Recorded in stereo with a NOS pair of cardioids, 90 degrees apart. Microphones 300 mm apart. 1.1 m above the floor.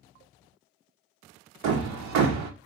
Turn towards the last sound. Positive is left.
turn(degrees=-70)